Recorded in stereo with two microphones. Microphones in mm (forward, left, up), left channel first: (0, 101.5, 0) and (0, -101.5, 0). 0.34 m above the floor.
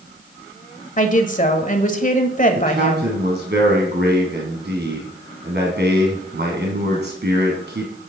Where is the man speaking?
60° right (ahead or behind), 2.5 m.